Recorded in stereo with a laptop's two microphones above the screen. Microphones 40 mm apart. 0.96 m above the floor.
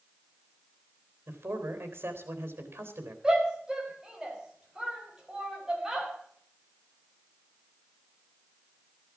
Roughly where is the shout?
Centre.